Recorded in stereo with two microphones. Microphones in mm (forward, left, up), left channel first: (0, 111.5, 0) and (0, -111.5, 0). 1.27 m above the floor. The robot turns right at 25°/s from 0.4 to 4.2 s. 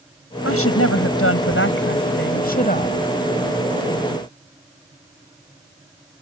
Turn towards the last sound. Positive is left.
turn(degrees=180)